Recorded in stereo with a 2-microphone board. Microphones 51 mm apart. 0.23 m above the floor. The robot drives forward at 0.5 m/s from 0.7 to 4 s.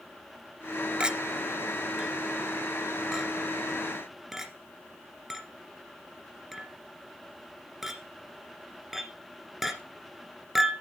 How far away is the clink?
About 0.5 m.